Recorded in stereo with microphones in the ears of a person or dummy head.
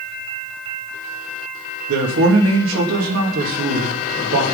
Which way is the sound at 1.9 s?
75° right (ahead or behind).